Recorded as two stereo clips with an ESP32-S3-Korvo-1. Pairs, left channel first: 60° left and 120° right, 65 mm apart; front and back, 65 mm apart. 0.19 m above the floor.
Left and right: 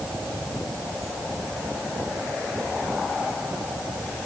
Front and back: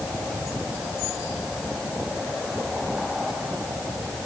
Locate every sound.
Only background noise.